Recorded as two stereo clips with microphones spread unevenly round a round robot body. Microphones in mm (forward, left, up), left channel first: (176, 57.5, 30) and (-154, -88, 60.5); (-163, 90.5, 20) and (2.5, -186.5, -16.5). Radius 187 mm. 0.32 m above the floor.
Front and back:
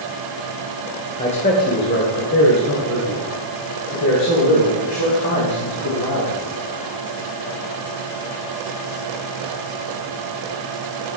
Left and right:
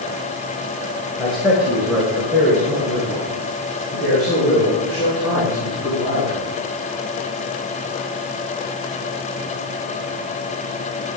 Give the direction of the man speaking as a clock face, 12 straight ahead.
10 o'clock.